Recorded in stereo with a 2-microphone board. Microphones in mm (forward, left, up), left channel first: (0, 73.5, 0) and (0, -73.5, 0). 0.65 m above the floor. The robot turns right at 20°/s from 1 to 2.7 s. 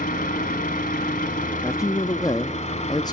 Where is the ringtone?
No ringtone in this recording.